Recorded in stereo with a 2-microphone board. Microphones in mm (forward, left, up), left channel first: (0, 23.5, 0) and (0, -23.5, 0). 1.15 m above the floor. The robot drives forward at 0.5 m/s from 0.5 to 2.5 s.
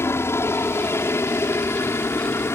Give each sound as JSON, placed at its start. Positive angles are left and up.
{"t": 0.0, "sound": "a helicopter", "side_deg": 65}